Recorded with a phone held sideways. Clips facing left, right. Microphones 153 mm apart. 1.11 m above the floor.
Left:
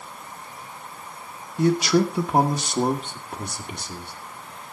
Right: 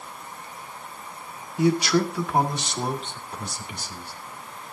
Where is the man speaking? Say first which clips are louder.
Left 2 dB; 5° right (ahead or behind), 1.0 m; by 4.1 s 60° left (ahead or behind), 2.5 m.